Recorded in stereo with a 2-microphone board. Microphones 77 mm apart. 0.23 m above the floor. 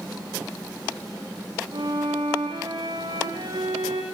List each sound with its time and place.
1.7 s a violin: 75° right (ahead or behind), 5.5 m